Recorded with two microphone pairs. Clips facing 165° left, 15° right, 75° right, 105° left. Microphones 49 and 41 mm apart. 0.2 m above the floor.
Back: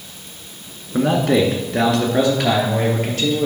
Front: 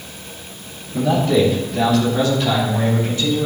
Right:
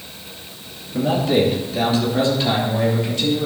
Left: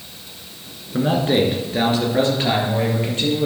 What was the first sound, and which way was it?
A man speaking, 150° left.